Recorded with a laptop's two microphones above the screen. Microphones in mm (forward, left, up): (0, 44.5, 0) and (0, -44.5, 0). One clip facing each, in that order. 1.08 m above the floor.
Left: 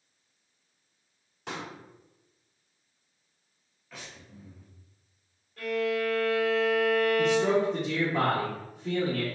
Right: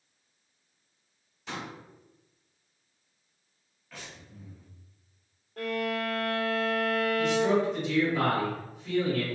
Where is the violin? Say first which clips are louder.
Left 2 dB; 60° right (ahead or behind), 1.8 m.